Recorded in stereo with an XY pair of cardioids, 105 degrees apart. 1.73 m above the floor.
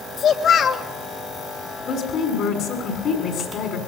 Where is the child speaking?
55° left, 3 m.